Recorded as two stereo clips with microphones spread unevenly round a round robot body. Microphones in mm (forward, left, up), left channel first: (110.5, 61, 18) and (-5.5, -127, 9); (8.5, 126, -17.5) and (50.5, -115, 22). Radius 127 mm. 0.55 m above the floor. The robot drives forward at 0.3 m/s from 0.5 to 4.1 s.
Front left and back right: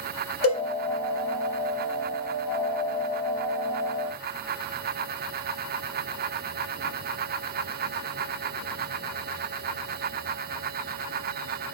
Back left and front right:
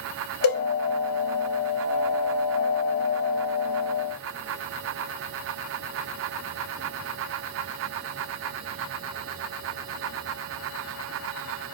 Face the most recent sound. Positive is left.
turn(degrees=125)